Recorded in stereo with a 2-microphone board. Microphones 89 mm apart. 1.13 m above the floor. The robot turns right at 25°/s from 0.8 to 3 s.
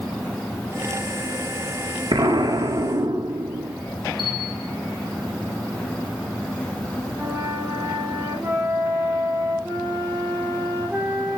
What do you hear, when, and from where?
2.1 s an explosion: 70° right (ahead or behind), 1.7 m; by 3.8 s 55° right (ahead or behind), 1.7 m
4.2 s a bell: 75° left (ahead or behind), 2 m
7.2 s a flute: 30° right (ahead or behind), 3 m